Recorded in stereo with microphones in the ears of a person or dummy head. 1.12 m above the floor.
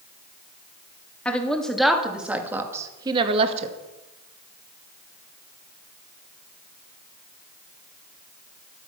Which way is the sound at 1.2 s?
5° left (ahead or behind).